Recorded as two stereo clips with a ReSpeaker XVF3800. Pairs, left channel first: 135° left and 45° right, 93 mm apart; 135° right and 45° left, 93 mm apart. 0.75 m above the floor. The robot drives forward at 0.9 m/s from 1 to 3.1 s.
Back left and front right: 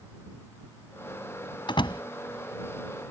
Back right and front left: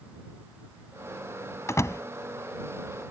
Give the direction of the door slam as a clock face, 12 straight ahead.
6 o'clock.